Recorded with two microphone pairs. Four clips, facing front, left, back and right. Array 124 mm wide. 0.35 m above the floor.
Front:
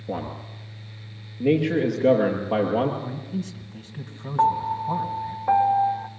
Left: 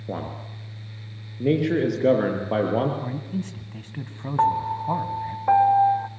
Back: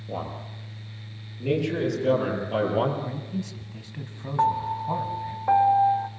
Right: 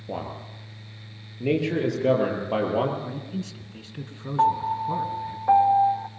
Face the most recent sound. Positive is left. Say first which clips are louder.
# even, front 3 dB
turn(degrees=75)